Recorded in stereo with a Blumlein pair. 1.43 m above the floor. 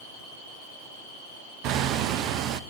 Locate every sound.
1.6 s hammering: 35° right, 1.4 m